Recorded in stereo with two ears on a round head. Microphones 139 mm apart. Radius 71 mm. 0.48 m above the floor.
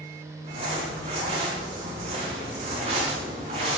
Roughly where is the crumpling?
Right.